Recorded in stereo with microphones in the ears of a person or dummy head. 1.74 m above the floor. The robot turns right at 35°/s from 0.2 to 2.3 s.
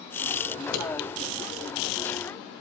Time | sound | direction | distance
0.6 | scissors | 55° left (ahead or behind) | 2.5 m